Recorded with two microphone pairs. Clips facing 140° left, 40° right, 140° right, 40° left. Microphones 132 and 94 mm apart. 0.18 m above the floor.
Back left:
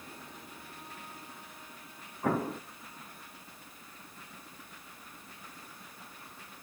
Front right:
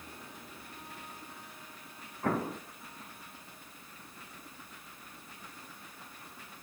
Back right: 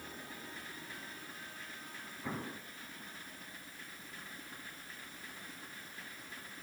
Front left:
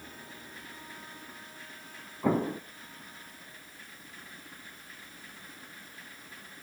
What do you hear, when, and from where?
2.2 s an explosion: 55° left, 0.6 m